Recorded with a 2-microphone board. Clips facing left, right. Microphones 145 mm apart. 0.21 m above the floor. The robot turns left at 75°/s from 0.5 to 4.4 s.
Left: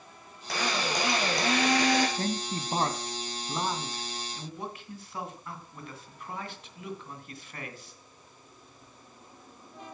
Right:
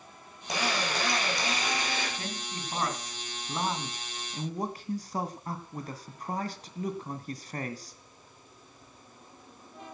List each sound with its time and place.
0.5 s a drill: 160° right, 6.5 m; by 2.1 s 80° left, 6.5 m
2.2 s a man speaking: 105° left, 1.8 m; by 8.0 s 65° right, 1.8 m